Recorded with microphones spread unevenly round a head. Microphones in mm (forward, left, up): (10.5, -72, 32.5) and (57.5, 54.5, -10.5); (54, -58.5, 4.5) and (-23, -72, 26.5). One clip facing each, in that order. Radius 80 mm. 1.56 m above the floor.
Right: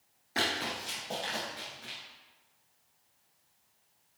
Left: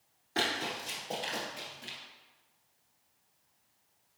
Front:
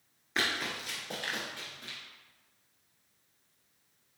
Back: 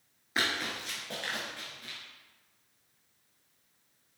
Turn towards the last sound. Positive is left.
turn(degrees=35)